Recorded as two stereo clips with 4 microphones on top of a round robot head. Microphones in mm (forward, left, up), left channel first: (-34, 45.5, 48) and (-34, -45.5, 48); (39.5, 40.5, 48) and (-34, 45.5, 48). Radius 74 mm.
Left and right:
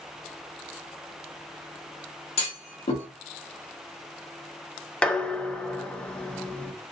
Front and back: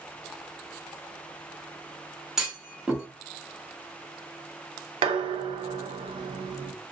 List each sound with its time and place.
2.4 s a clunk: 95° left, 1.7 m
5.0 s dishes clattering: 170° left, 0.6 m